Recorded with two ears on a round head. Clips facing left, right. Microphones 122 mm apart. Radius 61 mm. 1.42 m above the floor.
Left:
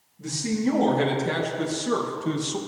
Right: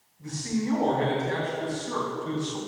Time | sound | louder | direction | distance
0.2 | a man speaking | left 4 dB | 85° left | 1.9 m